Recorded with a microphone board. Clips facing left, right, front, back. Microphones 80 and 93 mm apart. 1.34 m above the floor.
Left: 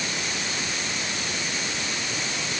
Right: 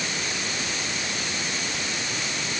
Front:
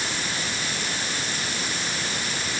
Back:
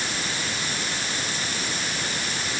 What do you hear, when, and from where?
Only background noise.